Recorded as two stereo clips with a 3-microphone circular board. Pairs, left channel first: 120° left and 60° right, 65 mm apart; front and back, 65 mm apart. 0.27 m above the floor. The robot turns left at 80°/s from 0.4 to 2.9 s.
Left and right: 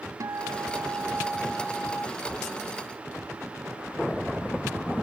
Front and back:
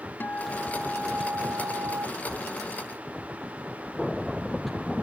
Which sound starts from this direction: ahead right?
A guitar, at 0.2 s.